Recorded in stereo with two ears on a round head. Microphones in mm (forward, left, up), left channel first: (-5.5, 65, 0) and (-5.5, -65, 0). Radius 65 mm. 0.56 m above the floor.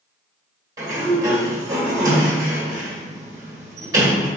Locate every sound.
0.8 s a sliding door: 25° right (ahead or behind), 1.5 m